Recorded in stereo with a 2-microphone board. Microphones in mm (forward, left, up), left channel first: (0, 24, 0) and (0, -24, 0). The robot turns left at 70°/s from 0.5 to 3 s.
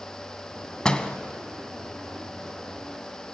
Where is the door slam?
15° left (ahead or behind), 1.0 m; by 1.2 s 20° left (ahead or behind), 1.0 m.